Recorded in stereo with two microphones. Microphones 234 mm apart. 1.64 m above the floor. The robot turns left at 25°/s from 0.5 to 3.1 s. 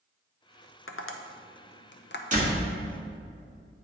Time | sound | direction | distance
0.9 | tapping | 70° left (ahead or behind) | 0.6 m
2.3 | a door slam | 35° right (ahead or behind) | 1.8 m